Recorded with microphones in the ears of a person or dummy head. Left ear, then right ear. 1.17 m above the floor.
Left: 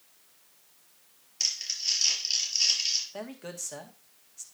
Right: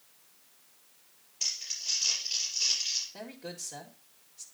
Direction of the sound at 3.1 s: 50° left (ahead or behind).